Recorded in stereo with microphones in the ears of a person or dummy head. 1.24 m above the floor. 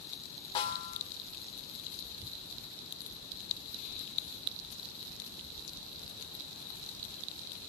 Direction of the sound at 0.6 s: 25° left (ahead or behind).